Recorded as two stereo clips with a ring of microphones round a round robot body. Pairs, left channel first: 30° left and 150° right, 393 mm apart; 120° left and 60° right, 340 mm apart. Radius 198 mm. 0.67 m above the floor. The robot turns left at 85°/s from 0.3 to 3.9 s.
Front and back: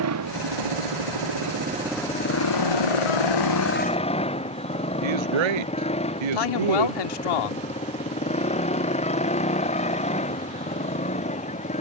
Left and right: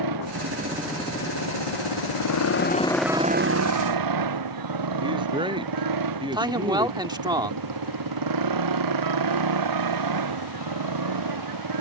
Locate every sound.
0.0 s a motorcycle: 100° right; by 11.8 s 45° right
5.0 s a man speaking: 140° right
6.3 s a man speaking: 15° left